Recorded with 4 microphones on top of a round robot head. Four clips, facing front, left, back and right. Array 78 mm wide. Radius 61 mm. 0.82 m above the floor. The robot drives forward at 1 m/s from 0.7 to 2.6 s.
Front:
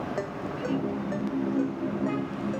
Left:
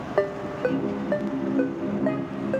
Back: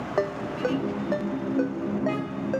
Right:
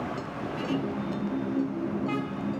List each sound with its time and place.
0.2 s a ringtone: 115° left; by 2.6 s 120° left